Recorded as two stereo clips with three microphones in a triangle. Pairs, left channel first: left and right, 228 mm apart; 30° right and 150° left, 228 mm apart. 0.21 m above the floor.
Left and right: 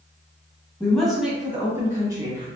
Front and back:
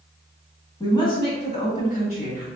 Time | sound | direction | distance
0.8 | a woman speaking | 15° left | 1.4 m